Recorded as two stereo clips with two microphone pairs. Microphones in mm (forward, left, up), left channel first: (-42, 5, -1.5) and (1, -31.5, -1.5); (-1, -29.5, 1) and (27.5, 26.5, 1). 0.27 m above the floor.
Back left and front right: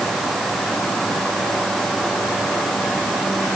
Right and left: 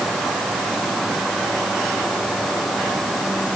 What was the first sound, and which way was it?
Only background noise.